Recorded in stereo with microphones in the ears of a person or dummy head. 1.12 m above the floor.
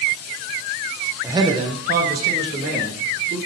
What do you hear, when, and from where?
1.2 s a man speaking: 10° right (ahead or behind), 0.6 m; by 3.4 s 60° right (ahead or behind), 2 m